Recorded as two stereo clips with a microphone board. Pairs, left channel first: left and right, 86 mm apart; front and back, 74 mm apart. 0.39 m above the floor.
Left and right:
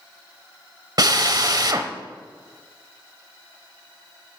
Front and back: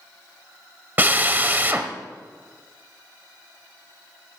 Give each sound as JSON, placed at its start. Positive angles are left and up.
{"t": 1.0, "sound": "a drill", "azimuth_deg": -120, "distance_m": 1.0}